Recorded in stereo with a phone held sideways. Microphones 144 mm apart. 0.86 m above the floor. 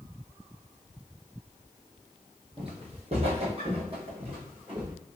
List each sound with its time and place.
2.6 s footsteps: 45° right (ahead or behind), 1.1 m; by 4.9 s 35° right (ahead or behind), 1.8 m